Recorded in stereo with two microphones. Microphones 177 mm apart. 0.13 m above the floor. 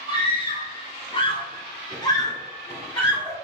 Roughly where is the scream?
Left.